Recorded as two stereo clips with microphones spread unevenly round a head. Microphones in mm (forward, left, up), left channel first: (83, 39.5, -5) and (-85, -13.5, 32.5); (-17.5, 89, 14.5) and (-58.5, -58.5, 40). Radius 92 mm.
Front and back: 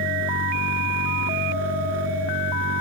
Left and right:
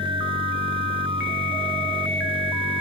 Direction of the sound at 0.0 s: 160° right.